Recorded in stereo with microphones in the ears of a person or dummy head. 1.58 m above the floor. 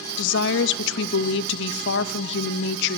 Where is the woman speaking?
80° left, 0.7 m.